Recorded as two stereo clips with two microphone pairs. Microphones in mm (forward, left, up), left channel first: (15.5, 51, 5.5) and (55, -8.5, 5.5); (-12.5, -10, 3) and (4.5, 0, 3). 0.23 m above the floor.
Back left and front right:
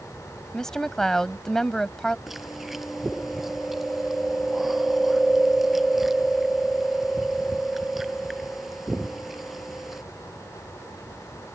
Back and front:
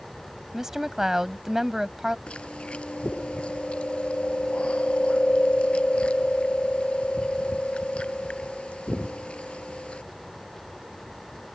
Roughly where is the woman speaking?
Ahead left.